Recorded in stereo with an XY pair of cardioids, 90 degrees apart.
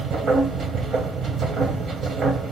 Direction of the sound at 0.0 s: 65° right.